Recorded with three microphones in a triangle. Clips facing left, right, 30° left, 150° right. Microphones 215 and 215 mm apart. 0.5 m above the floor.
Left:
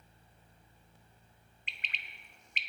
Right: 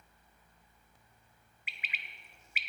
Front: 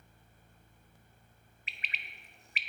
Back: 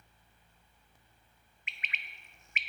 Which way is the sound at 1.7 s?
10° right.